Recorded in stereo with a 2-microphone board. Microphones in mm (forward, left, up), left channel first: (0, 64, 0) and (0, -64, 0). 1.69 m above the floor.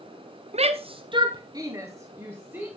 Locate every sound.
0.5 s a shout: 55° right (ahead or behind), 0.6 m; by 2.7 s 15° right (ahead or behind), 1.3 m